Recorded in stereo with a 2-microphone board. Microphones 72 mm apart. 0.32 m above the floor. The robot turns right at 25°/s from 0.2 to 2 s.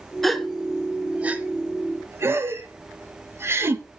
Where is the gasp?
5° left (ahead or behind), 0.6 m; by 4.0 s 35° right (ahead or behind), 0.6 m.